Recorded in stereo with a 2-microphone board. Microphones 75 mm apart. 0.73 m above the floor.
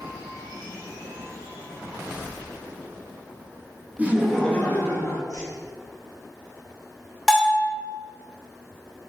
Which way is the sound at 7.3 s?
5° left (ahead or behind).